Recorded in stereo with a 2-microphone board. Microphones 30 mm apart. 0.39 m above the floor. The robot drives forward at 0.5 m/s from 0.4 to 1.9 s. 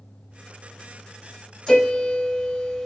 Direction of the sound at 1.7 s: 15° left (ahead or behind).